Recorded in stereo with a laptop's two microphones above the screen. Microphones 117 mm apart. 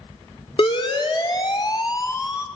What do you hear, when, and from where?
0.6 s a siren: 50° left (ahead or behind), 3 m; by 2.5 s 25° left (ahead or behind), 3.5 m